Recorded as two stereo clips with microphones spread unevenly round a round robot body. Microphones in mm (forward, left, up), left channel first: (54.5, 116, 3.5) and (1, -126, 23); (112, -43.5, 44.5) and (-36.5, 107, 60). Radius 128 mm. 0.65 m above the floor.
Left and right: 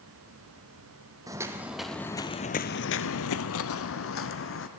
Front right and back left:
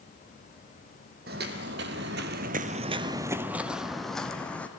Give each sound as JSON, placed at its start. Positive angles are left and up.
{"t": 1.3, "sound": "footsteps", "azimuth_deg": -175, "distance_m": 1.4}